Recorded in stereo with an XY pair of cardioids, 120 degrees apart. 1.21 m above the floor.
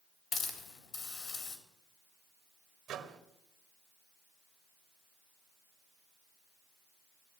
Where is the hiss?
45° left, 3.5 m.